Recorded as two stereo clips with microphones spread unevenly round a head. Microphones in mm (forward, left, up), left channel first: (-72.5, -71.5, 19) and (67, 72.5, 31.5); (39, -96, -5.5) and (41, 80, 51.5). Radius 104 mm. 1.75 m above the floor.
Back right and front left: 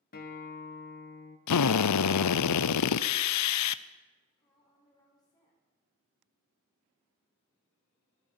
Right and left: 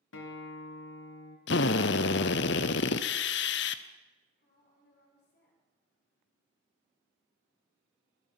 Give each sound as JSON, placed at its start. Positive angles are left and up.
{"t": 0.1, "sound": "a guitar", "azimuth_deg": -85, "distance_m": 1.8}
{"t": 1.5, "sound": "a drill", "azimuth_deg": -135, "distance_m": 0.5}
{"t": 4.4, "sound": "a woman speaking", "azimuth_deg": -60, "distance_m": 5.5}